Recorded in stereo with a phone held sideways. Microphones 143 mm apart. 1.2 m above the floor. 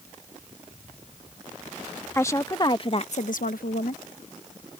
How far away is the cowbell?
No cowbell in this recording.